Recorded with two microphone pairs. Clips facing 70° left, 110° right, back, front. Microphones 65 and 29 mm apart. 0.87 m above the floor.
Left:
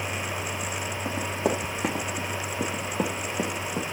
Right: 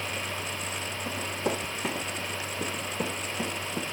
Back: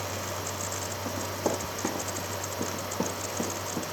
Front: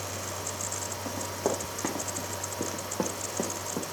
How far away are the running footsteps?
About 4 m.